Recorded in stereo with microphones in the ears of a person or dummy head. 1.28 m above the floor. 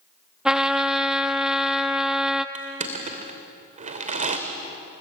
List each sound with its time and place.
0.5 s a trumpet: 5° right (ahead or behind), 1.1 m
2.5 s crushing: 30° right (ahead or behind), 2 m